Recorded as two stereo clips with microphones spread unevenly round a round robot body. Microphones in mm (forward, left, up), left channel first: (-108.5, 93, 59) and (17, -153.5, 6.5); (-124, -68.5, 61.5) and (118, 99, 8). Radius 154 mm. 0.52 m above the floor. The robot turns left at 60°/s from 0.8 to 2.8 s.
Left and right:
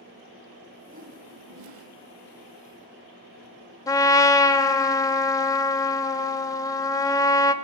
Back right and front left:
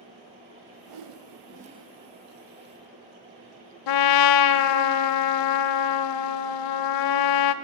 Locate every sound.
0.9 s a whoosh: 10° left, 0.6 m; by 1.9 s 50° right, 0.6 m
3.9 s a trumpet: 165° right, 0.5 m